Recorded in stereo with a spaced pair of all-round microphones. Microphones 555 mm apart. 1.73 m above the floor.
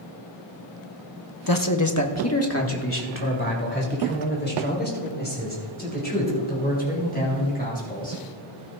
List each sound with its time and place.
1.5 s a man speaking: 40° left (ahead or behind), 0.9 m; by 8.2 s 15° left (ahead or behind), 8.5 m